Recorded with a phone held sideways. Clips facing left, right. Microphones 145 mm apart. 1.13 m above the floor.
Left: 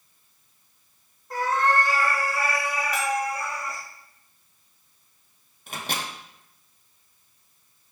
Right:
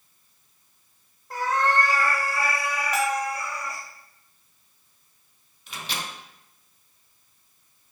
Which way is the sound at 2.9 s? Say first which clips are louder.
Right 2 dB; 25° right (ahead or behind).